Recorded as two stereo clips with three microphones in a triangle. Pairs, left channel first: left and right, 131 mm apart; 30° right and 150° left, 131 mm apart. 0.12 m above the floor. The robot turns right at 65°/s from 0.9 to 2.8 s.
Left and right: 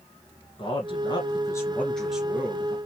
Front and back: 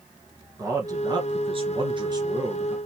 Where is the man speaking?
105° left, 1.7 m; by 2.8 s 135° right, 1.7 m.